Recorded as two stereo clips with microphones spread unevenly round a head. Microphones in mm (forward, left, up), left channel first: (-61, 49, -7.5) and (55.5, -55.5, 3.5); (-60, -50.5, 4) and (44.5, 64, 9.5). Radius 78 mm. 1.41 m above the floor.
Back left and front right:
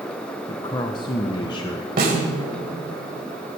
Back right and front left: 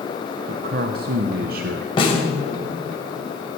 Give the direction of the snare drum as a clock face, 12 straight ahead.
2 o'clock.